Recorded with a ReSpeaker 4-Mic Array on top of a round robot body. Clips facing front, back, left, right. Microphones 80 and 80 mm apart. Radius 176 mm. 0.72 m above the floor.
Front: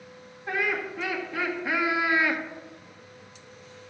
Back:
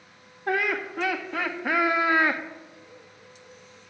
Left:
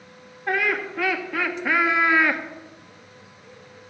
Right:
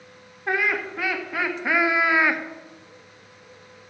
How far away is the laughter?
About 2.5 m.